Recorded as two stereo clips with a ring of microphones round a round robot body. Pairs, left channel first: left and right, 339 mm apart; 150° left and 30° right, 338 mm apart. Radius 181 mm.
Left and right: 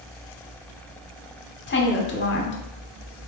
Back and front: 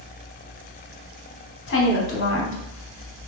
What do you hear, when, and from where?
1.7 s a woman speaking: 125° left, 1.0 m